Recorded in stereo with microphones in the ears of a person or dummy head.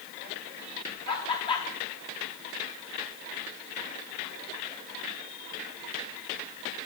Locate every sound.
1.1 s laughter: 30° left (ahead or behind), 3 m